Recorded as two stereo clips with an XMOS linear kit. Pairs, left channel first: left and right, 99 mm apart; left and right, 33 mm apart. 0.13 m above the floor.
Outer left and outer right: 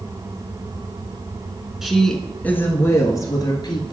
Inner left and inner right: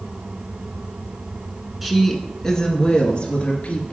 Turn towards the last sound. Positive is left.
turn(degrees=50)  # may be behind; listen again after turning